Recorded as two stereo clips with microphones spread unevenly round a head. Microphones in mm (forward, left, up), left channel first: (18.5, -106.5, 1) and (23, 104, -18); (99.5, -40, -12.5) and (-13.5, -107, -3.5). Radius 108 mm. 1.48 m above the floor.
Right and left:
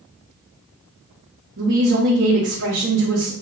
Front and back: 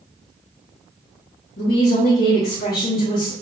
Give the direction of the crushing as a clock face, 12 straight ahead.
I don't hear crushing.